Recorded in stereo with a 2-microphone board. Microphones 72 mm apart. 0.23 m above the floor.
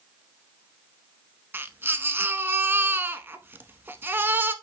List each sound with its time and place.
1.5 s a baby crying: 30° right (ahead or behind), 0.7 m